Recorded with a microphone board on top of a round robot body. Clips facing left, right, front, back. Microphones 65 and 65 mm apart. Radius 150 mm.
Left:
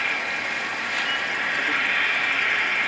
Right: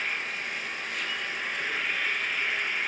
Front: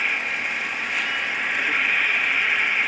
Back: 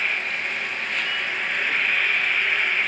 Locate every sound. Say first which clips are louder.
0.0 s an insect: left 6 dB, front 1 dB; 80° left, 1.0 m